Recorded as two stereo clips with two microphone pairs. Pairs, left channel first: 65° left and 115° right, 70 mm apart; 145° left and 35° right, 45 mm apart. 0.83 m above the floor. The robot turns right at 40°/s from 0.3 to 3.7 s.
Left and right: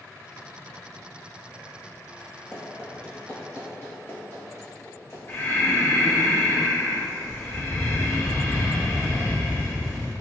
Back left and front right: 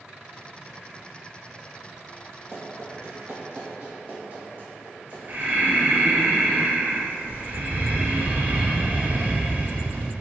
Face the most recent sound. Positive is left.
turn(degrees=5)